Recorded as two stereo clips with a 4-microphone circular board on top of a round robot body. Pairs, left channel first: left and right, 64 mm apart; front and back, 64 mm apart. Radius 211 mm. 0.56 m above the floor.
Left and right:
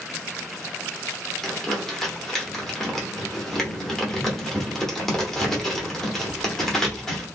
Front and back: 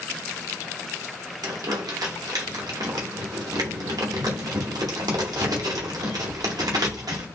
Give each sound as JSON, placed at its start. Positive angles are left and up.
{"t": 1.4, "sound": "crumpling", "azimuth_deg": 175, "distance_m": 1.1}